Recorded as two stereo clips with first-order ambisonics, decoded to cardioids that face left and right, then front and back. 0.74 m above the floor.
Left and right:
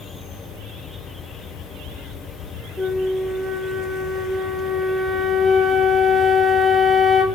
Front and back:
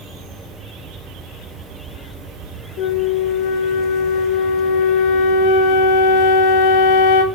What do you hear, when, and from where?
0.0 s an insect: 140° left, 1.6 m
2.8 s a flute: 5° right, 0.7 m